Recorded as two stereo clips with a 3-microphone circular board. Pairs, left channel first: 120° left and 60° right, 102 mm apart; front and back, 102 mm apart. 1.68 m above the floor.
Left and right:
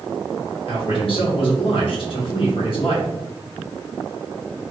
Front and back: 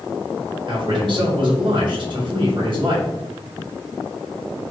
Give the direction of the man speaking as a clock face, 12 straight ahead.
7 o'clock.